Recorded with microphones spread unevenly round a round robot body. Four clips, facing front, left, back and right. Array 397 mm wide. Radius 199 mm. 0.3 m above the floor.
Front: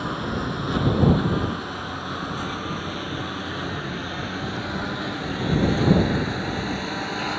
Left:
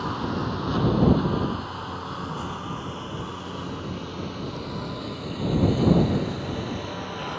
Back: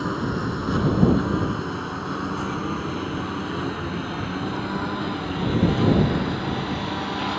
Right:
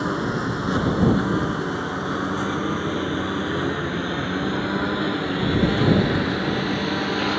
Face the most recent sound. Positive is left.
turn(degrees=-100)